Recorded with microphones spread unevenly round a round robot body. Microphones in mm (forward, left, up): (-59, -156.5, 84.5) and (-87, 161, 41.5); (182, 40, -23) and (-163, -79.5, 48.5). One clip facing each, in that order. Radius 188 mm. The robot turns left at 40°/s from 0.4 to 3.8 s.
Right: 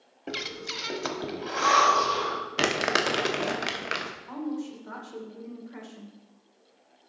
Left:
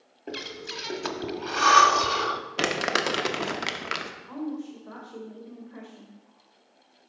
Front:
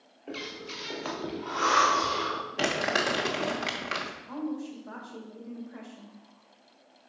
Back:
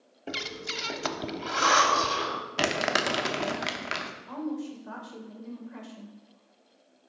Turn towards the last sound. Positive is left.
turn(degrees=-125)